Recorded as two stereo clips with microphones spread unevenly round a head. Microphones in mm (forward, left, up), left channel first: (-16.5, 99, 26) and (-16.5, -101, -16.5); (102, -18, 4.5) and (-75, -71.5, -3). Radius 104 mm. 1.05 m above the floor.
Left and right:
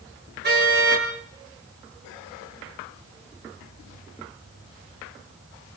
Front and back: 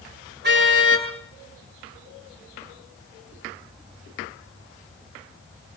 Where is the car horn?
130° right, 9 m.